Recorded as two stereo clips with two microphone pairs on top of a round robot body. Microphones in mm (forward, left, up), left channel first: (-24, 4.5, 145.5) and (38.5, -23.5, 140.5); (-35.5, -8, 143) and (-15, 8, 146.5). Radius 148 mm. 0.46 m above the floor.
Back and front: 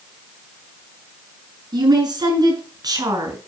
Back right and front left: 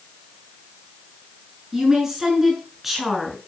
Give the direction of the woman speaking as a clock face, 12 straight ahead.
1 o'clock.